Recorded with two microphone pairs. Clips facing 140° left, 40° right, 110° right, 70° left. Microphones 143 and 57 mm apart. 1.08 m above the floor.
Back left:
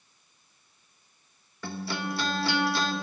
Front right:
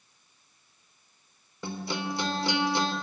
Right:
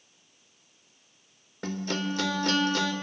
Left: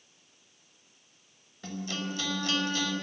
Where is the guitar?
110° right, 1.8 m.